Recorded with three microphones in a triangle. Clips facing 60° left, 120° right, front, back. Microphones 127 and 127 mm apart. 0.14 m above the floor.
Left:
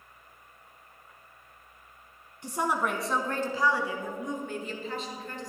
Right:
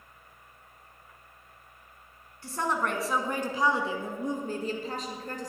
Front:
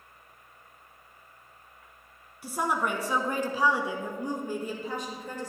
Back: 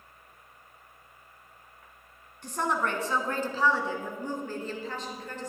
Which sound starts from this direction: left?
A woman speaking, at 2.4 s.